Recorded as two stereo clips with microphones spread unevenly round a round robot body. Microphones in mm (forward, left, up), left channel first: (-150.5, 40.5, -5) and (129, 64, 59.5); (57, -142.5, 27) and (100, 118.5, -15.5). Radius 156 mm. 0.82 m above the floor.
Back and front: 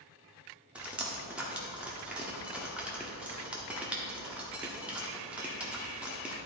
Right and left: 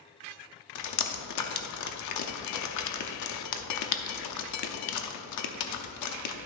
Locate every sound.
0.8 s dripping: 80° right, 0.8 m